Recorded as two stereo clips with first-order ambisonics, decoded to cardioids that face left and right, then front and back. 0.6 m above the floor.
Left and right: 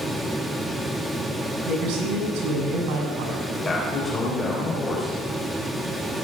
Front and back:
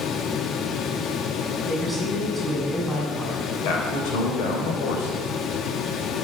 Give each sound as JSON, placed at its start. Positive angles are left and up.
{"t": 1.6, "sound": "a man speaking", "azimuth_deg": -90, "distance_m": 6.5}
{"t": 3.6, "sound": "a man speaking", "azimuth_deg": 15, "distance_m": 3.0}